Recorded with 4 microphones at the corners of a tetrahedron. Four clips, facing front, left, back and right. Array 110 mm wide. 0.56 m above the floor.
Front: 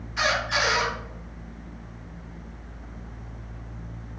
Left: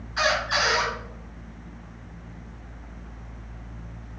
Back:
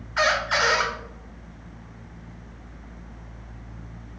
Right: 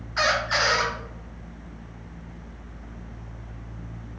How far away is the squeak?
About 1.5 m.